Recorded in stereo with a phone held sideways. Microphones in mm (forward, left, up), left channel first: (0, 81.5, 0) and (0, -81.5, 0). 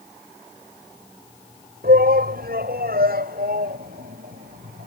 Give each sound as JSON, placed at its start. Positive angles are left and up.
{"t": 1.8, "sound": "a shout", "side_deg": -75}